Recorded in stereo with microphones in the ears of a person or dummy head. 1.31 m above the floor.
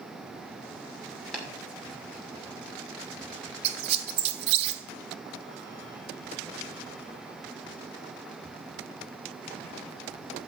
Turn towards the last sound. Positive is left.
turn(degrees=-35)  # may be behind; listen again after turning